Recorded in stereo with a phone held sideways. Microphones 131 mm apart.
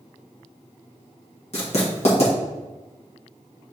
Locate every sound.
1.5 s writing: 55° left (ahead or behind), 1.3 m